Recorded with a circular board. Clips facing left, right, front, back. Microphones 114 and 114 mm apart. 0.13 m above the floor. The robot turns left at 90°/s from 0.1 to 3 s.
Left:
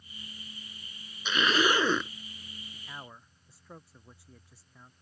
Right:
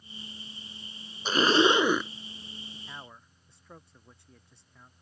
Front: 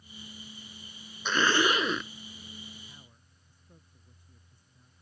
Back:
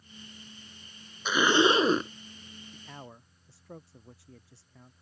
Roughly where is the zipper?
Right.